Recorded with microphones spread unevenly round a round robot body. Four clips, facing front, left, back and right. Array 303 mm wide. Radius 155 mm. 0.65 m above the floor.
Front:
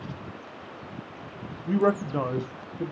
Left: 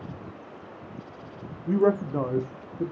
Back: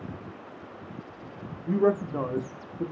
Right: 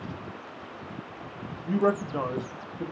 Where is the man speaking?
135° left, 0.6 m.